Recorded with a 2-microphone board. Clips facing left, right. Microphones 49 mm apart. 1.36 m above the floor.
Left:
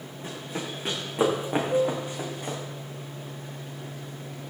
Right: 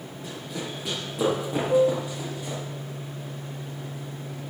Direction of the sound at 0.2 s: 40° left (ahead or behind).